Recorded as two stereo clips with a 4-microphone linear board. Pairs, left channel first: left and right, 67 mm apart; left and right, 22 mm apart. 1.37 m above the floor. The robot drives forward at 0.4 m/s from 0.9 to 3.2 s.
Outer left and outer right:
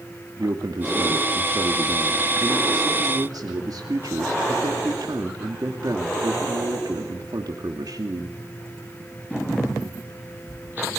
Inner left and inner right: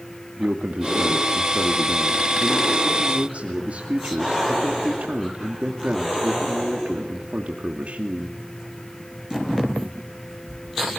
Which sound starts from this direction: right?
A man speaking, at 0.4 s.